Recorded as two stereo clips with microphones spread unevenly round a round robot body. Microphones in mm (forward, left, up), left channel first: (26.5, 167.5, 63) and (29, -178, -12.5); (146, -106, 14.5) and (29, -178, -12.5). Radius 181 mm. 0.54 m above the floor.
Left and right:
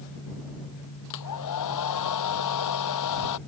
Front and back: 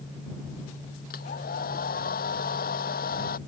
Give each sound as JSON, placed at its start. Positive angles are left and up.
{"t": 1.1, "sound": "a hair dryer", "azimuth_deg": 55}